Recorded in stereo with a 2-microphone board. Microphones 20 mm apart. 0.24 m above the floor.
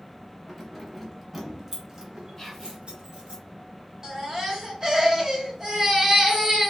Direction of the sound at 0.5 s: 10° left (ahead or behind).